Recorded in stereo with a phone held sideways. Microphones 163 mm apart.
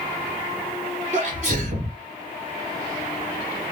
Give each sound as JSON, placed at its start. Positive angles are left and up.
{"t": 1.1, "sound": "a sneeze", "side_deg": -40, "distance_m": 1.0}